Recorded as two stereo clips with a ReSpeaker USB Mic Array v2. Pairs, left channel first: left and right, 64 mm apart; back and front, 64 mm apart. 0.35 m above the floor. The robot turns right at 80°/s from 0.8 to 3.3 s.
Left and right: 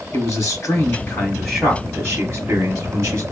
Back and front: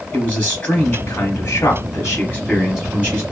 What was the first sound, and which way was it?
A man speaking, 115° left.